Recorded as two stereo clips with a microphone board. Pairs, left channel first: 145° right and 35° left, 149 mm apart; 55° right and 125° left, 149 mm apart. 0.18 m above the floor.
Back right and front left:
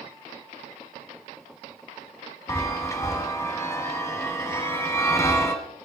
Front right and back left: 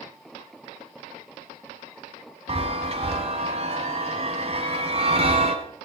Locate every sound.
2.5 s a chime: 150° left, 1.7 m